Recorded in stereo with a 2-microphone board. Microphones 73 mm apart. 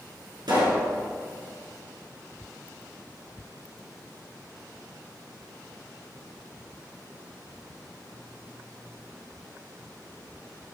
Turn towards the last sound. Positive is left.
turn(degrees=-70)  # may be behind; listen again after turning